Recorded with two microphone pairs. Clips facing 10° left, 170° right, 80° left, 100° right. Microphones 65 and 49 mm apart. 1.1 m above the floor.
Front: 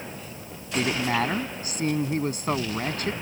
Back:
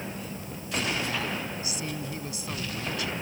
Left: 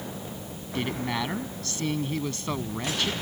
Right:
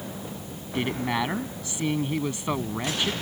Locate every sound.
0.8 s a woman speaking: 25° right